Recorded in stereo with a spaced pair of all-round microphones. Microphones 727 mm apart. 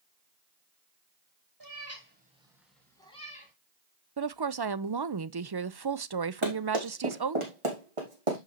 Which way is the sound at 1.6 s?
30° right (ahead or behind).